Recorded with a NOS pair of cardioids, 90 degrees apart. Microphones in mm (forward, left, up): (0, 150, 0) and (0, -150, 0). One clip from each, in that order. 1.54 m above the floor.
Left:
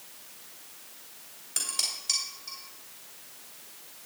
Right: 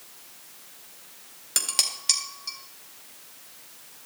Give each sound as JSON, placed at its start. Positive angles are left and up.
{"t": 1.6, "sound": "dishes clattering", "azimuth_deg": -70, "distance_m": 2.0}